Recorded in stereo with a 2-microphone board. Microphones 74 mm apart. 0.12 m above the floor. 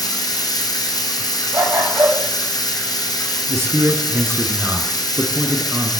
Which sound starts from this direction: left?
Running water, at 0.0 s.